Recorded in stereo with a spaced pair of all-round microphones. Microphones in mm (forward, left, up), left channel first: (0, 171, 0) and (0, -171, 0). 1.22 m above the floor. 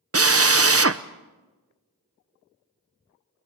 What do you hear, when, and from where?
0.1 s a drill: 45° right (ahead or behind), 0.7 m